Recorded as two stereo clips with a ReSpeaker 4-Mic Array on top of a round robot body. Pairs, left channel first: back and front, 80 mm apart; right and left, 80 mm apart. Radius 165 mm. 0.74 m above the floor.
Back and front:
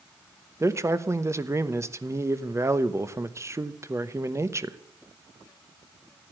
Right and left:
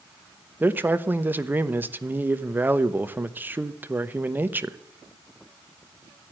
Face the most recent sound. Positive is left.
turn(degrees=35)